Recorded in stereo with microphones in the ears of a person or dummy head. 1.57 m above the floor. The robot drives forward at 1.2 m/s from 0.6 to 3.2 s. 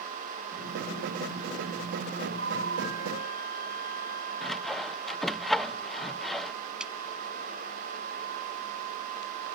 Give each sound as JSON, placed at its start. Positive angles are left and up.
{"t": 2.3, "sound": "a flute", "side_deg": -60}
{"t": 4.4, "sound": "sawing", "side_deg": 10}
{"t": 6.8, "sound": "a clap", "side_deg": -10}